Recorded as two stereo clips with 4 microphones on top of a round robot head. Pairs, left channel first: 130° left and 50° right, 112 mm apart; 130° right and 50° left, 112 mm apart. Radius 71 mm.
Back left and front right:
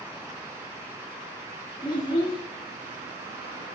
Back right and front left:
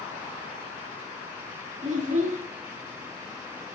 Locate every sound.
1.8 s a child speaking: 75° left, 2.0 m